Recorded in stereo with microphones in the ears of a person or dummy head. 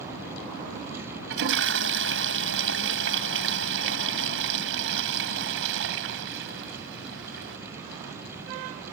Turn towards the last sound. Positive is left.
turn(degrees=-70)  # may be behind; listen again after turning